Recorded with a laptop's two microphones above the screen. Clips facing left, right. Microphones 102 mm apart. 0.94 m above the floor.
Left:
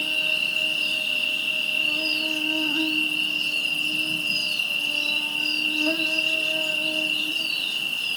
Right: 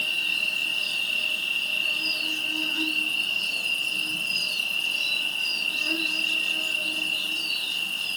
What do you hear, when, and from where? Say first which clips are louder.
0.0 s an insect: left 3 dB; 60° left (ahead or behind), 1.4 m